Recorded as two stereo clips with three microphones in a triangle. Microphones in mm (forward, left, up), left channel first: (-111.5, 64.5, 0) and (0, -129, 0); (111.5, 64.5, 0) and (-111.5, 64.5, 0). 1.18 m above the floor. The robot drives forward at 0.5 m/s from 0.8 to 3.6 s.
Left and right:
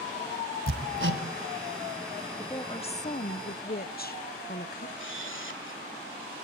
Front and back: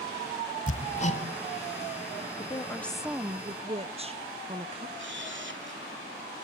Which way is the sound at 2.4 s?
55° left.